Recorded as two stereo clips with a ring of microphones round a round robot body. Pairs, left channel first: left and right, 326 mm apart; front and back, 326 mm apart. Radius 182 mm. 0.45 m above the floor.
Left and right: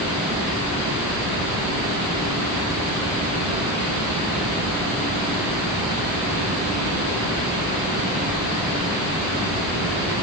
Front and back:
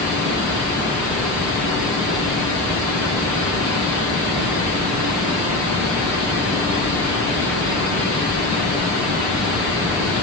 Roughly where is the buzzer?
I don't hear a buzzer.